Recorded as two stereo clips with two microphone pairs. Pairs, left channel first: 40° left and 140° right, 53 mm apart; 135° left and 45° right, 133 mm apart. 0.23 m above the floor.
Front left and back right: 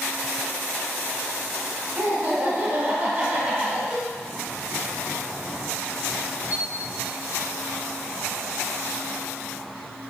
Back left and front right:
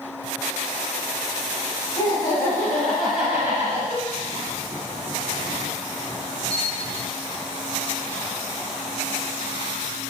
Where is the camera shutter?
150° right, 1.3 m.